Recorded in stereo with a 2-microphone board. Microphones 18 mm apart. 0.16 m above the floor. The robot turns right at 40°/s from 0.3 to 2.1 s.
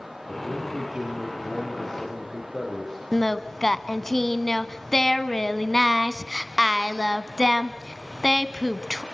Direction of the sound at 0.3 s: 30° right.